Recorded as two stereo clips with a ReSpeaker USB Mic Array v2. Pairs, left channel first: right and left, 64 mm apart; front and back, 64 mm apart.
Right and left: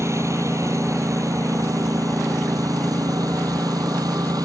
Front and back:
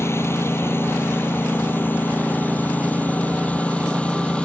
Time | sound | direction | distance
0.0 | a lawn mower | 45° left | ?